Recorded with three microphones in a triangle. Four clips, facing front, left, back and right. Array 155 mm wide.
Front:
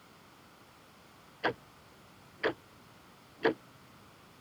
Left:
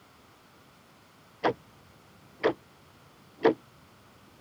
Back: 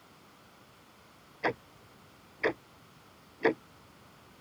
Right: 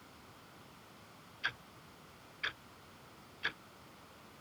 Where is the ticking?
95° left.